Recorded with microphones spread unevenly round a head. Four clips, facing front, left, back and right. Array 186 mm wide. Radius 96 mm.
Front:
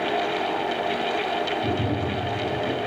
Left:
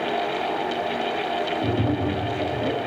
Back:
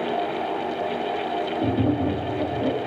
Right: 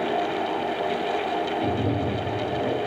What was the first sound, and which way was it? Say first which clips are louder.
Tapping: left 1 dB, back 3 dB; straight behind.